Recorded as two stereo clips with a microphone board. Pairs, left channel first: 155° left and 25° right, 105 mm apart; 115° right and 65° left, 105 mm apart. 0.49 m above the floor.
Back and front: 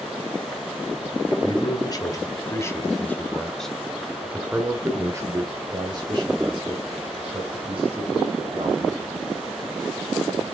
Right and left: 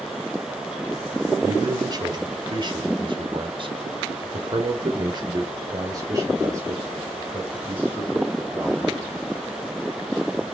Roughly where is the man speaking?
Behind left.